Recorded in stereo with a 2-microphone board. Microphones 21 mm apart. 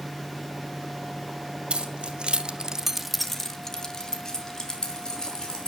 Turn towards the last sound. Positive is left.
turn(degrees=40)  # may be behind; listen again after turning